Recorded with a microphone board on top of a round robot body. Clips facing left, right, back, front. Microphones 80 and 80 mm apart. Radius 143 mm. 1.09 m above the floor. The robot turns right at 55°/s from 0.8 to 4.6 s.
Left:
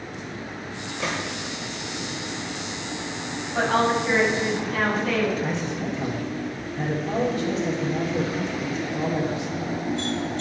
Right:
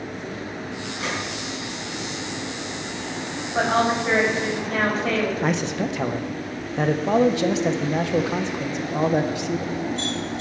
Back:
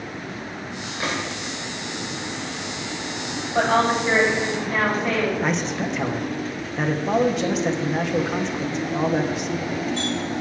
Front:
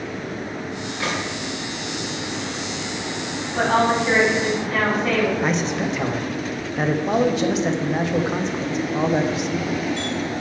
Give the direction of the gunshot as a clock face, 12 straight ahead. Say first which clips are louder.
Left 1 dB, front 1 dB; 8 o'clock.